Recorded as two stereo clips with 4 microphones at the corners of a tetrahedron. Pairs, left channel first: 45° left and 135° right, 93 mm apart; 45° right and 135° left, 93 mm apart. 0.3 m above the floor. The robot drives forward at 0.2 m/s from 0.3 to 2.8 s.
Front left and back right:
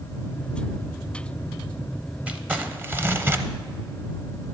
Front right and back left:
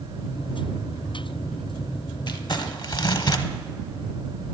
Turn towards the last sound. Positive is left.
turn(degrees=-70)